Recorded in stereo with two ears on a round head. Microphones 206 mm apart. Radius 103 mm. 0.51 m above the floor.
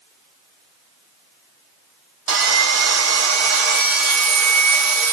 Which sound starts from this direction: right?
Sawing, at 2.3 s.